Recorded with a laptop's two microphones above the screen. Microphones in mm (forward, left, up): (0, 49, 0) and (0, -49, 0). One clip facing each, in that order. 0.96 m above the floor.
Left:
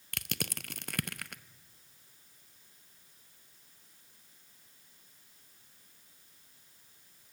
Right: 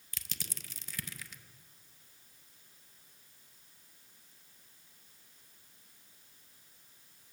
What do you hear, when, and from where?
0.1 s crushing: 60° left (ahead or behind), 0.6 m